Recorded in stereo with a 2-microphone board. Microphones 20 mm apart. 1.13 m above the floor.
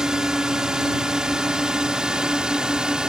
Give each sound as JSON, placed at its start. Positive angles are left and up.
{"t": 0.0, "sound": "a drone", "side_deg": -40}